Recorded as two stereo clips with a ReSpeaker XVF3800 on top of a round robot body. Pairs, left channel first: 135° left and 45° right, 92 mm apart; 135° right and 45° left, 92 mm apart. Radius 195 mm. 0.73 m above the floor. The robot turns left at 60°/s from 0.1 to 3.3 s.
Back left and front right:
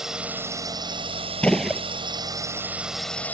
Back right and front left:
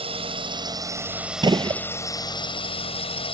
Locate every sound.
0.0 s a drone: 40° left; by 3.3 s 155° right
1.4 s a gunshot: 60° left; by 1.8 s 35° left